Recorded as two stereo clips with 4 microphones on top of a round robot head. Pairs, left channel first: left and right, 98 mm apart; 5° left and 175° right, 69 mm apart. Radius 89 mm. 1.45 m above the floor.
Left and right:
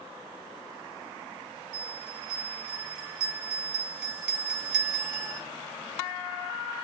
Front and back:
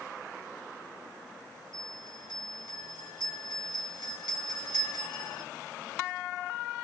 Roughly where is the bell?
Ahead.